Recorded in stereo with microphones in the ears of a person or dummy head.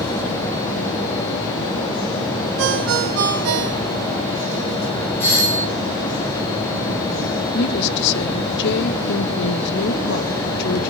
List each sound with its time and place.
2.6 s a ringtone: 70° right (ahead or behind), 2 m
5.2 s a doorbell: 10° left (ahead or behind), 7.5 m
7.5 s a woman speaking: 60° left (ahead or behind), 1.3 m